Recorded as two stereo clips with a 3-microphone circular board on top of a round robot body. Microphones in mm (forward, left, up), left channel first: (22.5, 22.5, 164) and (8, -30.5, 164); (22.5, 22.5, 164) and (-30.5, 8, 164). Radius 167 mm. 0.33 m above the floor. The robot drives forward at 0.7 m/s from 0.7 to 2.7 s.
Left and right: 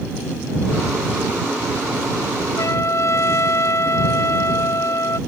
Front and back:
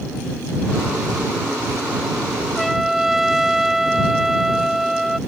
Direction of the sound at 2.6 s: 100° left.